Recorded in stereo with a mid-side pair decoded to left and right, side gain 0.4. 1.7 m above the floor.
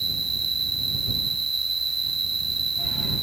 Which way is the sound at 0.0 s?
30° right.